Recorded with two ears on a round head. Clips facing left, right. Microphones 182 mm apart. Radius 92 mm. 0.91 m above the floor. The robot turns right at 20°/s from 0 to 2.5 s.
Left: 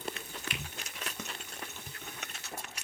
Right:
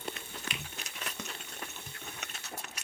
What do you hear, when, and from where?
0.5 s a finger snap: 60° right (ahead or behind), 0.8 m